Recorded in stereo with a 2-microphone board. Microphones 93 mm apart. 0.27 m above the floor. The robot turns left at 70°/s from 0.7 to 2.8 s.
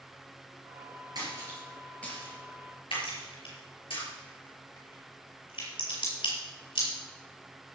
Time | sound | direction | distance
1.1 | a splash | 45° right (ahead or behind) | 5.5 m
3.0 | a crack | 65° left (ahead or behind) | 6 m